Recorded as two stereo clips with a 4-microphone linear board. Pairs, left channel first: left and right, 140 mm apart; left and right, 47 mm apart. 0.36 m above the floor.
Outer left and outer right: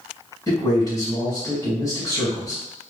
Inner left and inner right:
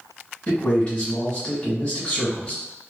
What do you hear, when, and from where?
0.5 s a man speaking: 25° left (ahead or behind), 1.5 m